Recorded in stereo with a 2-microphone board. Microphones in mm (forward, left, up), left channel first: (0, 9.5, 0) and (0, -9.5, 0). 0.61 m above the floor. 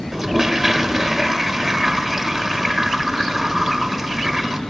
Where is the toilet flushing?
20° right (ahead or behind), 0.9 m.